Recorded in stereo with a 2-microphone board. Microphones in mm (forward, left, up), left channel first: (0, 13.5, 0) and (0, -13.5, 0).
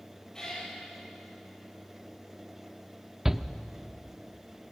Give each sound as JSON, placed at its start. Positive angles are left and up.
{"t": 0.3, "sound": "a cat meowing", "side_deg": 25, "distance_m": 8.0}
{"t": 3.2, "sound": "a shout", "side_deg": -15, "distance_m": 0.7}